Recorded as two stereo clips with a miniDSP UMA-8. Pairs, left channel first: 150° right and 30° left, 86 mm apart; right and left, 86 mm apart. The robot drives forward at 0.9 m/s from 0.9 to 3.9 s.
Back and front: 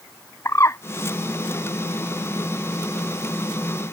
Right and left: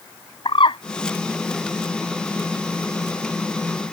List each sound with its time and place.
0.5 s a bird: 95° right